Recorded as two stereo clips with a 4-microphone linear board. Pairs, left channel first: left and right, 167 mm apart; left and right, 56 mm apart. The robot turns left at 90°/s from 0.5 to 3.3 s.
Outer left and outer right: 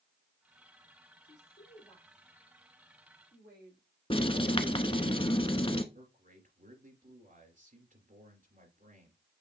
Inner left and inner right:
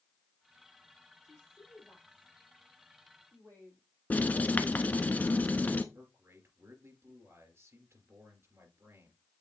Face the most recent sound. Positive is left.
turn(degrees=-50)  # may be behind; listen again after turning